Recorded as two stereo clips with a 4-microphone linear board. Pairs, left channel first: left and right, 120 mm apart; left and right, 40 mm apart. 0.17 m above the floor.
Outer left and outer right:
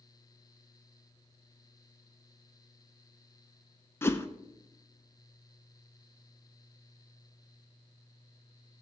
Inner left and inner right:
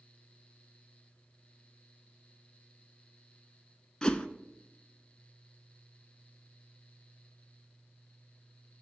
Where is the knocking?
I don't hear knocking.